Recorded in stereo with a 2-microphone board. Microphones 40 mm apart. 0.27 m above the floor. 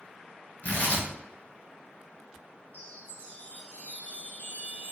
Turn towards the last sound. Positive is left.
turn(degrees=40)  # may be behind; listen again after turning